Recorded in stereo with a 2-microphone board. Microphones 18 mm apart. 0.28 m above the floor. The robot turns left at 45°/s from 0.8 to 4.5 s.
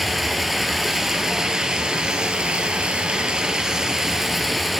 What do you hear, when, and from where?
0.0 s running water: straight ahead, 0.8 m; by 4.8 s 170° right, 0.8 m